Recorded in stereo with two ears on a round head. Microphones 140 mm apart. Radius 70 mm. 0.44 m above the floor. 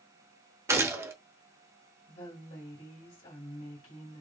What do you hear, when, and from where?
0.7 s a gunshot: 15° right (ahead or behind), 1.0 m
2.1 s a woman speaking: 50° left (ahead or behind), 2.5 m